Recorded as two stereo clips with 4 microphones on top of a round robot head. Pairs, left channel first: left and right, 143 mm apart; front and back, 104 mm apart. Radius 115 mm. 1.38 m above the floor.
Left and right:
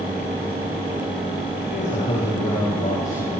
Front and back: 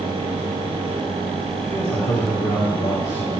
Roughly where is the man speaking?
Ahead left.